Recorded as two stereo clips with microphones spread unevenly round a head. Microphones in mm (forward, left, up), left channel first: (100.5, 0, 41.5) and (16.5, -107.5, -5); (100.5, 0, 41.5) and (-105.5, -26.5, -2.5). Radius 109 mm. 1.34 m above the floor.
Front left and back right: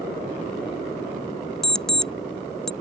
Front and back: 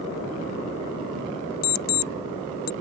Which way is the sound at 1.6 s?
25° right.